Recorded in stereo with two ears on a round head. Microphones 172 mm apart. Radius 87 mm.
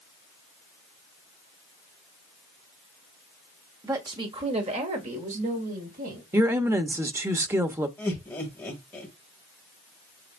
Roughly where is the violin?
No violin in this recording.